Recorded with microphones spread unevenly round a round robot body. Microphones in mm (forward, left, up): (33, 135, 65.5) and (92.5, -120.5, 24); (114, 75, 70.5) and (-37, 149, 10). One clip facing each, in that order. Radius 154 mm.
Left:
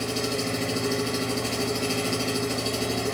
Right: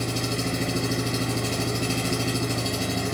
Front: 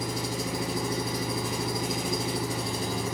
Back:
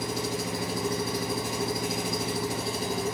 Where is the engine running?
95° right, 2 m.